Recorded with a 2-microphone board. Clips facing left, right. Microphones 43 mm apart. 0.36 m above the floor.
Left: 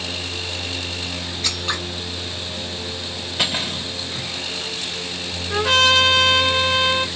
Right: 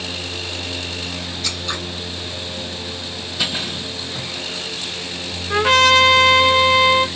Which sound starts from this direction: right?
A trumpet, at 5.5 s.